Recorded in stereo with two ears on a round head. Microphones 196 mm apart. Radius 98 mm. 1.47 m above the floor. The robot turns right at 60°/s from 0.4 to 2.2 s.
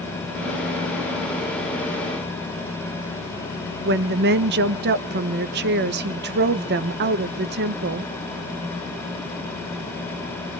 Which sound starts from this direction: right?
A woman speaking, at 3.9 s.